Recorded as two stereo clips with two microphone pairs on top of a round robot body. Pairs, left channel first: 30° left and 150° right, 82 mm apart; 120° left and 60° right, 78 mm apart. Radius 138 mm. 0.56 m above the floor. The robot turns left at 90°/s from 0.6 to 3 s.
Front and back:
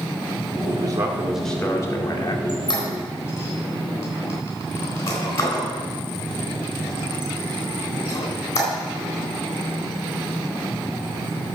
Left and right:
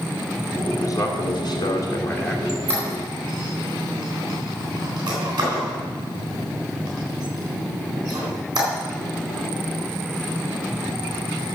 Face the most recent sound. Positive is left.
turn(degrees=-25)